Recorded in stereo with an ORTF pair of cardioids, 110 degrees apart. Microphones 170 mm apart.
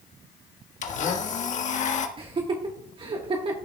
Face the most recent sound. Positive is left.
turn(degrees=-30)